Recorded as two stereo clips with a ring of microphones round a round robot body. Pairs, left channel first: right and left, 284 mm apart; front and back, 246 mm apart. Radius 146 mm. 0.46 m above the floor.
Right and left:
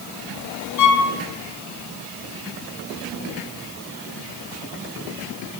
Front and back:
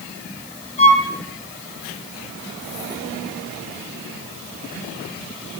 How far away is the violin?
About 3 m.